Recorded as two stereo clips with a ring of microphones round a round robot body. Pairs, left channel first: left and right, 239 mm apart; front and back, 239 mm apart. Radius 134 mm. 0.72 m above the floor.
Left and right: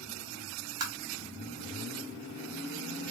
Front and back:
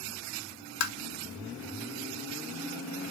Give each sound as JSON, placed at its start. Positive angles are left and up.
{"t": 0.8, "sound": "tapping", "azimuth_deg": -15, "distance_m": 0.8}